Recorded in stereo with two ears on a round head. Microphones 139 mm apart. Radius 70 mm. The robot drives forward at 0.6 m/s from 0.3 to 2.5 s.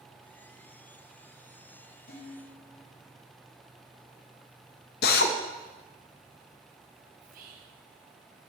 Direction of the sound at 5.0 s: 70° left (ahead or behind).